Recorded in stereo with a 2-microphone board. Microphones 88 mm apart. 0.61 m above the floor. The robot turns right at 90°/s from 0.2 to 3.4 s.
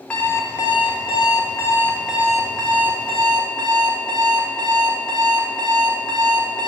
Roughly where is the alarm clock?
Ahead.